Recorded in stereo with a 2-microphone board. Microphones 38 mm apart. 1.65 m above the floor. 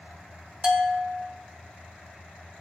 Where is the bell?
25° right (ahead or behind), 0.6 m.